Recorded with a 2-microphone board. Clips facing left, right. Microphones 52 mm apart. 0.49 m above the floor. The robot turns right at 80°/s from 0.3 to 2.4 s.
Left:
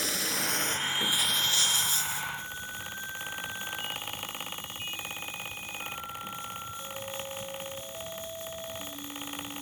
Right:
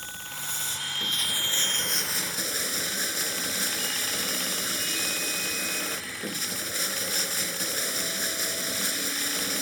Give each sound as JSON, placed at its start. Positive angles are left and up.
{"t": 0.0, "sound": "running water", "azimuth_deg": 100}